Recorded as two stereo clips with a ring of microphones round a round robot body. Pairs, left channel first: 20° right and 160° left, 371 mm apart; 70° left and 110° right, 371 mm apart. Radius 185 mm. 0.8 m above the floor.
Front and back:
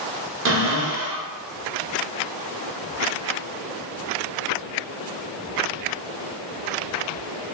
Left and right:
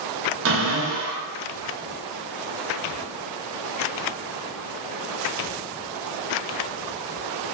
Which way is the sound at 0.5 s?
155° right.